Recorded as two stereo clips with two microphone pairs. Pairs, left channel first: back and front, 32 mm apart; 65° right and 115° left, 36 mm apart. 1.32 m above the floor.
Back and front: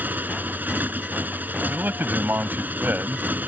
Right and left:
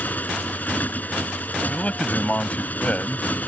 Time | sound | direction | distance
0.0 | a motorcycle | 25° right | ?
1.7 | a man speaking | 10° right | ?